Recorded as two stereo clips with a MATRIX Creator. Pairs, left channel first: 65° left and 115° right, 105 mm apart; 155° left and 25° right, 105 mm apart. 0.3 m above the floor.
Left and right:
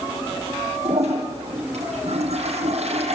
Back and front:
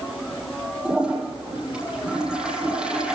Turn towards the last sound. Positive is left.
turn(degrees=-105)